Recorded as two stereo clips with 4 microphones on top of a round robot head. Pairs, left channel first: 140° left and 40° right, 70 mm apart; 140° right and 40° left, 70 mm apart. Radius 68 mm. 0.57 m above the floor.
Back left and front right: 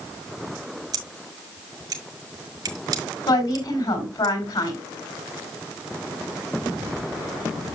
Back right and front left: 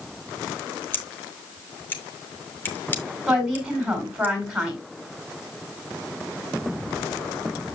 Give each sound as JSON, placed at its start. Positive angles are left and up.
{"t": 0.9, "sound": "scissors", "azimuth_deg": -75, "distance_m": 2.5}
{"t": 3.3, "sound": "a woman speaking", "azimuth_deg": 125, "distance_m": 5.5}